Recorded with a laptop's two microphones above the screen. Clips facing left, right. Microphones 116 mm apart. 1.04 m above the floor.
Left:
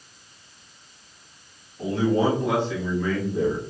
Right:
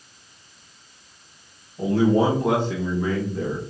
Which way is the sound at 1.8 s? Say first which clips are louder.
Right 3 dB; 65° right (ahead or behind).